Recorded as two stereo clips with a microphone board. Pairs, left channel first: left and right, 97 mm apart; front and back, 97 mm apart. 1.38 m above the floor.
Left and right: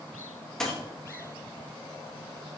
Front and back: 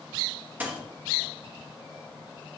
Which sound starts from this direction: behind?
A dropped coin, at 0.6 s.